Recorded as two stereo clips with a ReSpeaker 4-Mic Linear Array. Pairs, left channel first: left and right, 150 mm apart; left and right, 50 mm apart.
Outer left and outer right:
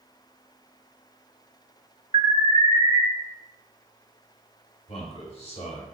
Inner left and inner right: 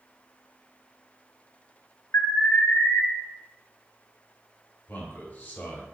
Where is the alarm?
60° left (ahead or behind), 1.0 m.